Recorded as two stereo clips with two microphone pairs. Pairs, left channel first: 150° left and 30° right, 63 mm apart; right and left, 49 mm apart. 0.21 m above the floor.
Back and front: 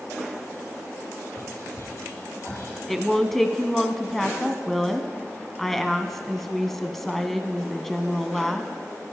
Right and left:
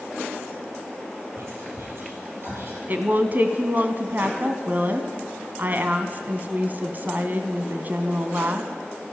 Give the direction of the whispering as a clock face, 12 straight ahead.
8 o'clock.